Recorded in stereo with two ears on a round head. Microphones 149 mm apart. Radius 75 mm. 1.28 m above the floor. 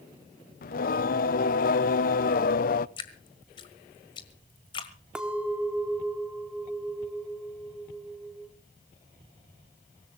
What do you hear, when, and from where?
0.6 s singing: 55° left (ahead or behind), 0.5 m
3.0 s dripping: 30° left (ahead or behind), 1.6 m
5.2 s a clink: 5° right (ahead or behind), 1.8 m